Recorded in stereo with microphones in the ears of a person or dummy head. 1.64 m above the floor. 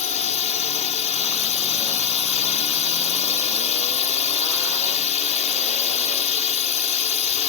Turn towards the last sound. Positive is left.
turn(degrees=40)  # may be behind; listen again after turning